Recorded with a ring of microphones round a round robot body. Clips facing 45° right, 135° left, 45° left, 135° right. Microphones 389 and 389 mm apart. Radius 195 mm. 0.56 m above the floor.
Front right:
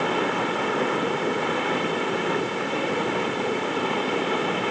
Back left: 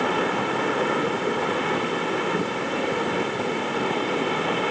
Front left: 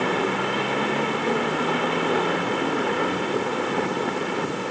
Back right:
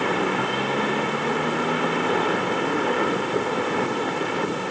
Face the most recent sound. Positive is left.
No sound to turn to.